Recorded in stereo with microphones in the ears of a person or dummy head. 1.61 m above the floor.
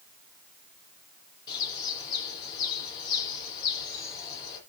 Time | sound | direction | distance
1.5 | a bird | 25° left (ahead or behind) | 7.5 m